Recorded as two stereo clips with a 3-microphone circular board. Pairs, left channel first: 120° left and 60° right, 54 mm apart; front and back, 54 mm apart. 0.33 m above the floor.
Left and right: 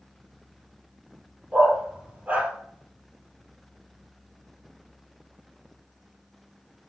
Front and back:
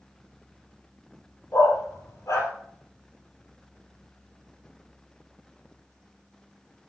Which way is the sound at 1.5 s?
Straight ahead.